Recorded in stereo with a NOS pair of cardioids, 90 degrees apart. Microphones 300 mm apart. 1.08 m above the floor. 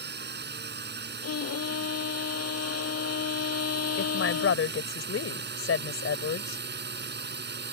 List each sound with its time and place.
0.0 s a drone: 35° right
1.2 s a violin: 55° left
4.0 s a woman speaking: 45° left